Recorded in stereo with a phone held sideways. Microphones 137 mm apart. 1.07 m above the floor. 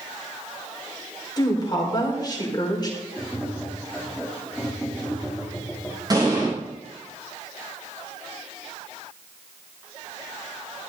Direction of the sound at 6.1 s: 30° right (ahead or behind).